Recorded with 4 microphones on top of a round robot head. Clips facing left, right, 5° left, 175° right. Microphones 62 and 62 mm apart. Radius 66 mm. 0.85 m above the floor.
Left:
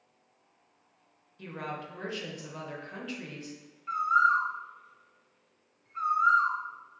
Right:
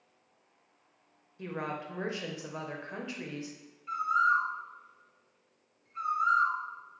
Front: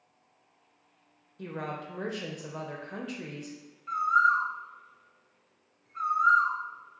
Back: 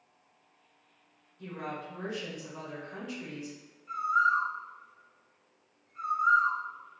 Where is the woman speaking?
25° right, 0.8 m.